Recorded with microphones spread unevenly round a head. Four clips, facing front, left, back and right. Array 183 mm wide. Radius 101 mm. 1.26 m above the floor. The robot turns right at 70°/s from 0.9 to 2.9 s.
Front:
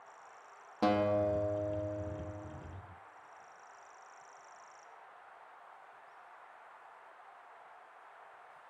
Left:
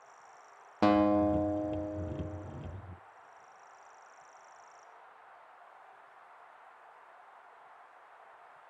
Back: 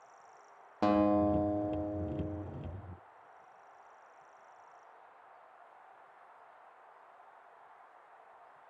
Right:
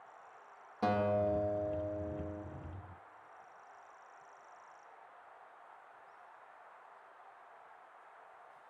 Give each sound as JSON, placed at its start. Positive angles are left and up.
{"t": 0.8, "sound": "a guitar", "azimuth_deg": 80, "distance_m": 1.1}